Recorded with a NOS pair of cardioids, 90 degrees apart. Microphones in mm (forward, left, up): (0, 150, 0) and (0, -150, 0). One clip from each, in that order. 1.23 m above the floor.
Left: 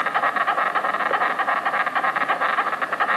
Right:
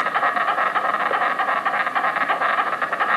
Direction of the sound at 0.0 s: 5° right.